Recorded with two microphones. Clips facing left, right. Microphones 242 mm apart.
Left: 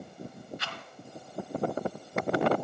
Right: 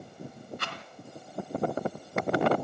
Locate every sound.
0.6 s a rattle: 60° right (ahead or behind), 2.5 m